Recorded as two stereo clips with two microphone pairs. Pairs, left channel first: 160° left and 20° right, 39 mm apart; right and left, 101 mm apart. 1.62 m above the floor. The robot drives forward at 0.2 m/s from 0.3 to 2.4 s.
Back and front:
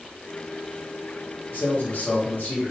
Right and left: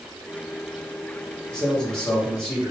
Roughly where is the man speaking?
Behind.